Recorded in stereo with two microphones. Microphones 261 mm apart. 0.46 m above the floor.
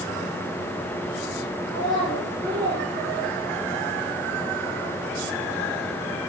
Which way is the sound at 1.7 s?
40° right (ahead or behind).